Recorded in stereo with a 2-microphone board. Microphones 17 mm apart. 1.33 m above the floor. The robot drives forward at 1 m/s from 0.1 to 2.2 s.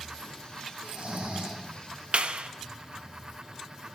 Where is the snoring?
80° right, 4.5 m; by 1.6 s 85° right, 4.5 m.